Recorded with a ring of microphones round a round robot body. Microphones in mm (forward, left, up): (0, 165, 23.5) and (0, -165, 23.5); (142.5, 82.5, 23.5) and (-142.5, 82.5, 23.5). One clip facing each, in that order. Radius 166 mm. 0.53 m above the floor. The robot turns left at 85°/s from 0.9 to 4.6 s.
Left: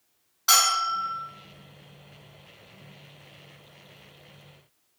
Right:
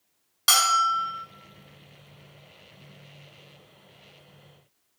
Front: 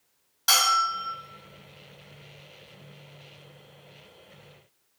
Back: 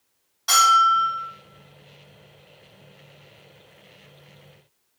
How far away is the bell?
About 1.1 m.